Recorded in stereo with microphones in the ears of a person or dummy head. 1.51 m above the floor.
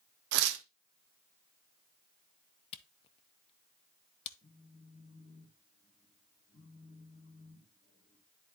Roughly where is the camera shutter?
Left.